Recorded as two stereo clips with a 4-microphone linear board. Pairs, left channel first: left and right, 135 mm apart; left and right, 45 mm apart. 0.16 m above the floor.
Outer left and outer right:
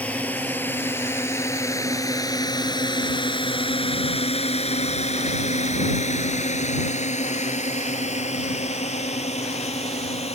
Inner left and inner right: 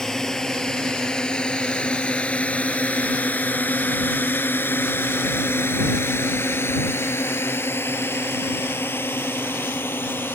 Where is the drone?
10° left (ahead or behind); by 10.3 s 50° left (ahead or behind).